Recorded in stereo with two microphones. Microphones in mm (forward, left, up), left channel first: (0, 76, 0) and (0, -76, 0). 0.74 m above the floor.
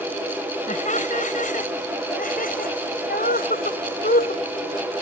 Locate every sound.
0.7 s laughter: 55° left (ahead or behind); by 4.5 s 80° left